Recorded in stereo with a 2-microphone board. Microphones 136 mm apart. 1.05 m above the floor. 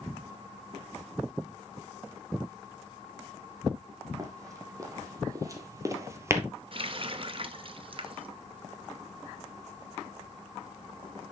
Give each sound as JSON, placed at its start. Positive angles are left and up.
{"t": 4.2, "sound": "running footsteps", "side_deg": -25, "distance_m": 2.5}
{"t": 6.7, "sound": "a running tap", "side_deg": -45, "distance_m": 0.7}